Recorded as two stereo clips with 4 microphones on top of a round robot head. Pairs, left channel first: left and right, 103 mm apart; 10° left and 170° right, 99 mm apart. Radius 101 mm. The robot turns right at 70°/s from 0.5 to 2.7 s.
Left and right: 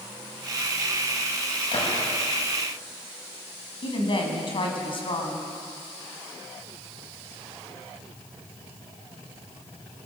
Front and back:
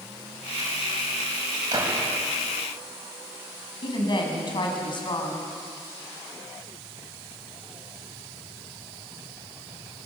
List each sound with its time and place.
1.7 s a gunshot: 135° left, 6 m; by 2.1 s 160° left, 6 m
3.8 s a woman speaking: 50° left, 5.5 m